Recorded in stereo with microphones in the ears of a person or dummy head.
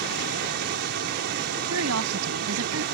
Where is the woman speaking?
85° right.